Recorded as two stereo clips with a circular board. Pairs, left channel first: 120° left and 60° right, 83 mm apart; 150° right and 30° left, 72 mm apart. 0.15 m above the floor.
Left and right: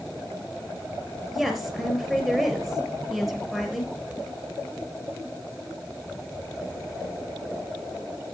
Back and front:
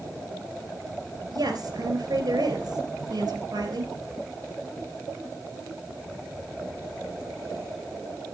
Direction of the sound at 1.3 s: 30° left.